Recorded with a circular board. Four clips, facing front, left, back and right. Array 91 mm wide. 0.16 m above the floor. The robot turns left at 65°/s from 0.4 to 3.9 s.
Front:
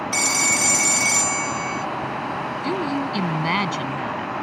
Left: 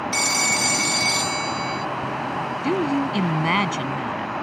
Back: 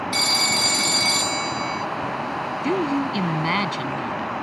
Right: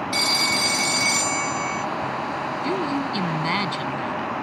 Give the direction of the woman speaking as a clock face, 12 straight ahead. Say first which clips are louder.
Left 4 dB, back 3 dB; 7 o'clock.